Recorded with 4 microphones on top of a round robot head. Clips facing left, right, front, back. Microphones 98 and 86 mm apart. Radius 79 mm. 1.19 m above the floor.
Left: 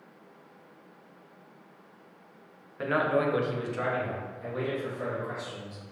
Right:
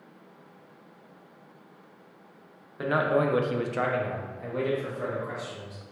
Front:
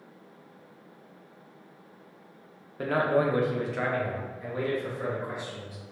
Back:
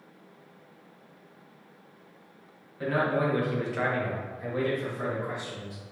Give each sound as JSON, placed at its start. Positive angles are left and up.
{"t": 2.8, "sound": "a man speaking", "azimuth_deg": -10, "distance_m": 0.7}